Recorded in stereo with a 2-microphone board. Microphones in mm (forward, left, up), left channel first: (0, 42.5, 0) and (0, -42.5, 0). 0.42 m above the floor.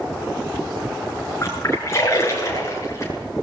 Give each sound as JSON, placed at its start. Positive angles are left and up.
{"t": 1.4, "sound": "a splash", "side_deg": 30, "distance_m": 6.5}